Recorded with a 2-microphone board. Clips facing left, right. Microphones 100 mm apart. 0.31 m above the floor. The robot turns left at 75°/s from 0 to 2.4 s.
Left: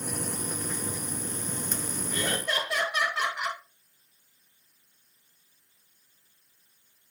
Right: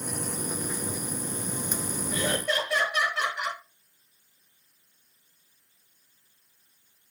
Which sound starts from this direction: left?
Laughter, at 2.1 s.